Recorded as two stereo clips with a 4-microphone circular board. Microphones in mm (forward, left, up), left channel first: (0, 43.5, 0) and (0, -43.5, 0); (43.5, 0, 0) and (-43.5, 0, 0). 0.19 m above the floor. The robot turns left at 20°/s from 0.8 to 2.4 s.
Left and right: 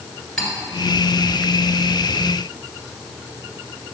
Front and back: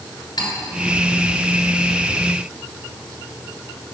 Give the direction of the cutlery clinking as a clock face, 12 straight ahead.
12 o'clock.